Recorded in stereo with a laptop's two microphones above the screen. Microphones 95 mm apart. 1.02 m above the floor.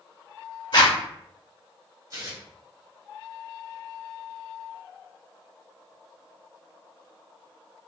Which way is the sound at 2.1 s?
40° right (ahead or behind).